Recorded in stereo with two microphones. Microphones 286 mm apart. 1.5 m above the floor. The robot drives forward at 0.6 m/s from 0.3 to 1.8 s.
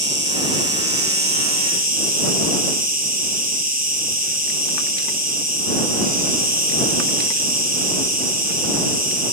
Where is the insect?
40° right (ahead or behind), 1.3 m; by 9.3 s 30° right (ahead or behind), 1.5 m.